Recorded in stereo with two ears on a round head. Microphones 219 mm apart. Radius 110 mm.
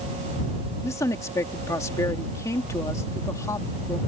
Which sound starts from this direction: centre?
A woman speaking, at 0.8 s.